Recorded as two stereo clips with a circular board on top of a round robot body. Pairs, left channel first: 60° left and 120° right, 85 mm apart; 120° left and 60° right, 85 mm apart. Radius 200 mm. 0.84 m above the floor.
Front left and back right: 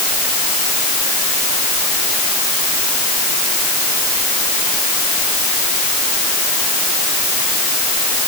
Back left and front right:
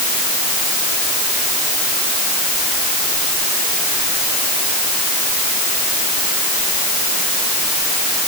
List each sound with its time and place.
Only background noise.